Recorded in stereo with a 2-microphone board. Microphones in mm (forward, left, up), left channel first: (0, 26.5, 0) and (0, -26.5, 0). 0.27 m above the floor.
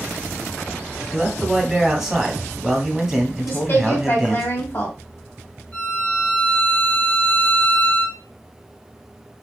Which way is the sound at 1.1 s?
10° right (ahead or behind).